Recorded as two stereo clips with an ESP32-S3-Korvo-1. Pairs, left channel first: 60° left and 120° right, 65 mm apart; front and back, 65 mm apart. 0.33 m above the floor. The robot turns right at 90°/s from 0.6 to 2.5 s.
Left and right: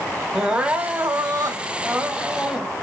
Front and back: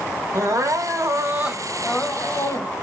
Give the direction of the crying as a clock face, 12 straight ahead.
6 o'clock.